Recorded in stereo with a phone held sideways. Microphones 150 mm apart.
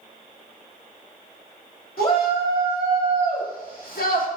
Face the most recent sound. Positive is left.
turn(degrees=70)  # may be behind; listen again after turning